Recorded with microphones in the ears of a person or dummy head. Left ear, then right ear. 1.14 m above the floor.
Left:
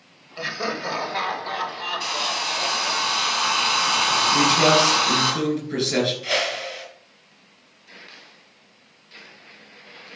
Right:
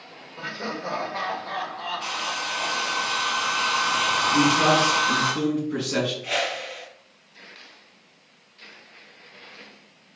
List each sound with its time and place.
0.4 s laughter: 40° left (ahead or behind), 4 m; by 3.0 s 15° left (ahead or behind), 7 m
2.0 s a hair dryer: 35° left (ahead or behind), 6.5 m
4.3 s a man speaking: 35° left (ahead or behind), 8 m
6.2 s a whoosh: 35° left (ahead or behind), 5 m